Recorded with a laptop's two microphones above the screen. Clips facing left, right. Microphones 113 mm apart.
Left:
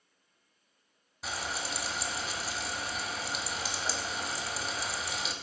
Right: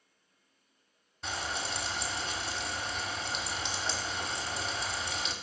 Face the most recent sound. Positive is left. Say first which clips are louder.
# right 1 dB
turn(degrees=5)  # may be behind; listen again after turning